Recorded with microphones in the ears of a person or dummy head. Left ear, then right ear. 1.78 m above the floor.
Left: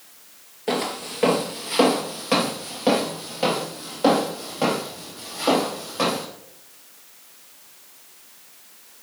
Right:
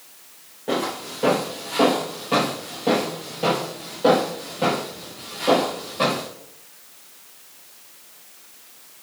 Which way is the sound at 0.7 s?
45° left (ahead or behind).